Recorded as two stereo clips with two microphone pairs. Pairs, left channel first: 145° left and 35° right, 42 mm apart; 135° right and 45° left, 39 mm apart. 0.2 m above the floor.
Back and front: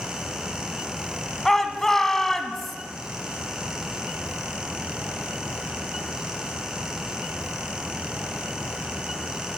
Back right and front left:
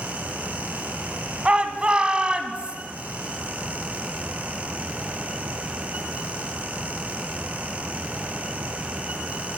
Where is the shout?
75° left, 1.6 m.